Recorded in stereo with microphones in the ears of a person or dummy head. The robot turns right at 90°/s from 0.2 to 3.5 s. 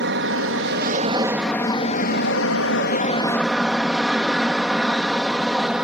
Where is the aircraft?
110° right; by 5.8 s 170° right.